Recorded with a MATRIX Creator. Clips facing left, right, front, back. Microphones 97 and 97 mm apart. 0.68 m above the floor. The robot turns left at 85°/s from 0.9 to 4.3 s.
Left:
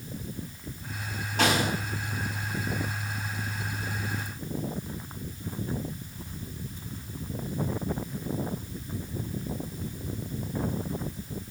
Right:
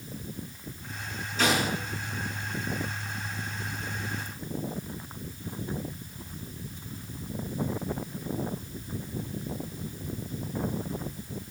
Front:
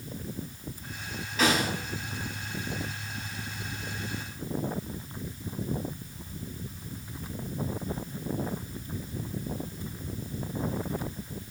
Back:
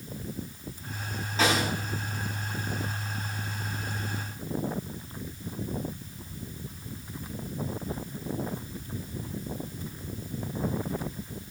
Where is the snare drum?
120° left, 5.5 m; by 1.7 s 95° left, 5.5 m.